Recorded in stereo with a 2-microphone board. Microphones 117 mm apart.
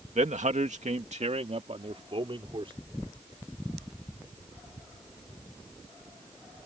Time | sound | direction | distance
0.1 | a man speaking | 75° right (ahead or behind) | ?